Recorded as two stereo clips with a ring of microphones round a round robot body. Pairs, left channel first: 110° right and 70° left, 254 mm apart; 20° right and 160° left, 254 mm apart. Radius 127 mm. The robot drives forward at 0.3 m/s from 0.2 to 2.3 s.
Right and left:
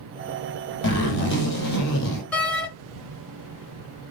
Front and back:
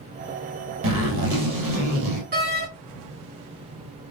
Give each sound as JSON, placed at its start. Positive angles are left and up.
{"t": 0.8, "sound": "a zipper", "azimuth_deg": -160, "distance_m": 1.8}
{"t": 2.3, "sound": "a door slam", "azimuth_deg": 165, "distance_m": 0.9}